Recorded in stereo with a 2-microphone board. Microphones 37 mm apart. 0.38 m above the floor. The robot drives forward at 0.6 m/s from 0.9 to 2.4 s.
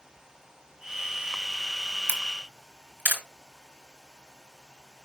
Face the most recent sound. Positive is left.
turn(degrees=-60)  # may be behind; listen again after turning